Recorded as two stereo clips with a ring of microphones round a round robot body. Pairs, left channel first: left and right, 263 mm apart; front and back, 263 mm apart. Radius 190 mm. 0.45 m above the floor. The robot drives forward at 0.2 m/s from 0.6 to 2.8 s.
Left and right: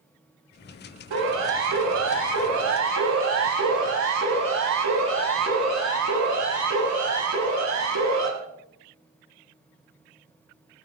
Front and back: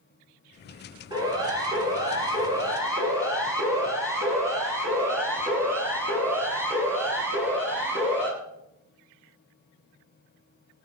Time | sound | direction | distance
1.1 | a siren | 105° right | 9.5 m